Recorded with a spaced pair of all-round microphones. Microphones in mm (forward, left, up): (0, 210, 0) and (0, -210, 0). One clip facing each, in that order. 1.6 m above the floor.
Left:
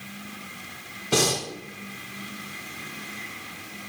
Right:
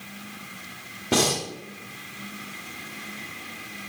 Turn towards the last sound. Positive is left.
turn(degrees=-70)  # may be behind; listen again after turning